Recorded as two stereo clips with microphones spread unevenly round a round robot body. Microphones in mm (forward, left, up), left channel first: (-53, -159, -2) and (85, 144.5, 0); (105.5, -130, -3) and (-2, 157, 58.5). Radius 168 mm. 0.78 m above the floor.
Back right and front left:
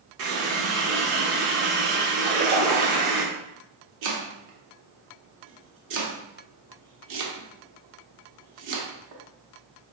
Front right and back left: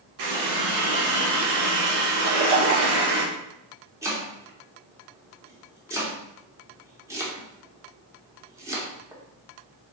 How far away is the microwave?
No microwave in this recording.